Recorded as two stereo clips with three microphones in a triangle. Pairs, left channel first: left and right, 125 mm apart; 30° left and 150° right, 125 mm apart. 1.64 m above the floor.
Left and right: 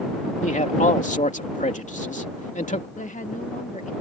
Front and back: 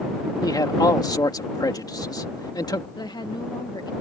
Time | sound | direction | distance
0.4 | a man speaking | 85° left | ?
3.0 | a woman speaking | 85° left | ?